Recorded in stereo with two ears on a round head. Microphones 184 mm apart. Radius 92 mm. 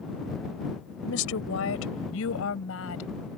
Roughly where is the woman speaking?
Left.